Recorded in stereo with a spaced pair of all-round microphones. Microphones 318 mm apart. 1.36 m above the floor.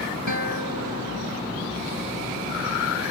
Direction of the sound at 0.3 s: 70° right (ahead or behind).